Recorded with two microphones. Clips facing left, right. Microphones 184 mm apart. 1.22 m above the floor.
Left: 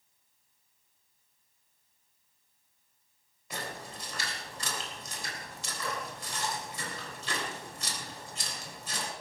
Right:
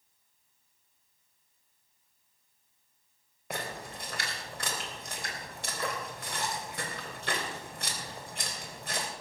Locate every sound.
3.5 s a splash: 65° right (ahead or behind), 3.5 m